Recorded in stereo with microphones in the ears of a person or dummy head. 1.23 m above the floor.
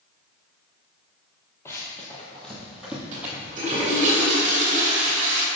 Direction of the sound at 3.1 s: 40° right (ahead or behind).